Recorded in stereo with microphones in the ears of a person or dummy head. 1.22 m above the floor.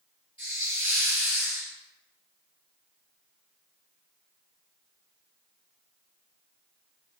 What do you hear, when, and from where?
0.4 s a hiss: 15° right (ahead or behind), 1.9 m